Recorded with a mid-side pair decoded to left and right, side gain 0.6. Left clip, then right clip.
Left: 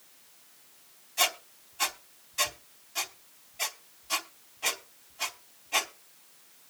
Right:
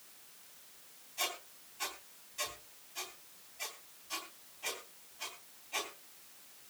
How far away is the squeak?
About 3 m.